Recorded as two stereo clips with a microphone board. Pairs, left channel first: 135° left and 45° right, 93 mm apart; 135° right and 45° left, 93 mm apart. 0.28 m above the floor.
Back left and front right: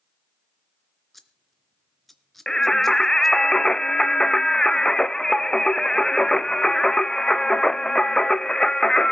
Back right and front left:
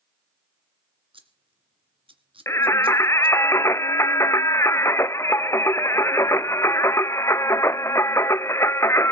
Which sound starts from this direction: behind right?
Singing, at 2.5 s.